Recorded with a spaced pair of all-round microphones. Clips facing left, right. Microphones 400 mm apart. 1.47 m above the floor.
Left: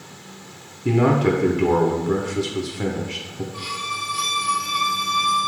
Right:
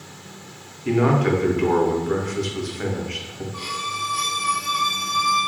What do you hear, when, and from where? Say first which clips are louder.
0.8 s a man speaking: left 1 dB; 55° left (ahead or behind), 0.7 m
3.5 s a violin: even; 65° right (ahead or behind), 0.6 m